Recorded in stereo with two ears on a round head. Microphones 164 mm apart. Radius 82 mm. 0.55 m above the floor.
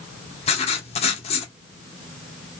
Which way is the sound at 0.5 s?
35° left (ahead or behind).